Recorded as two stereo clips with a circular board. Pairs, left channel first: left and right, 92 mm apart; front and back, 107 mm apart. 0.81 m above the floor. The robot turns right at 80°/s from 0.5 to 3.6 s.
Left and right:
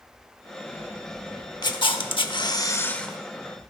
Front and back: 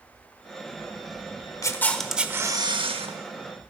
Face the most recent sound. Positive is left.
turn(degrees=-145)